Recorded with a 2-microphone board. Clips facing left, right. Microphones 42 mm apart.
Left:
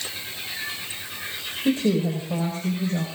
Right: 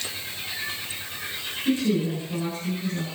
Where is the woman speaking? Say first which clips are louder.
Left 2 dB; 60° left (ahead or behind), 6.5 m.